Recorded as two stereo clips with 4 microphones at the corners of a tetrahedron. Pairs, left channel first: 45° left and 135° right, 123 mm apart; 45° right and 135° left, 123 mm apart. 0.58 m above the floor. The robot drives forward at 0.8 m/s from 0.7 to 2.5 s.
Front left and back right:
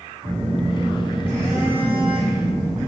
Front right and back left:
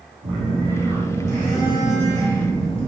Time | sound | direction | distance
0.2 | a phone buzzing | 145° left | 1.5 m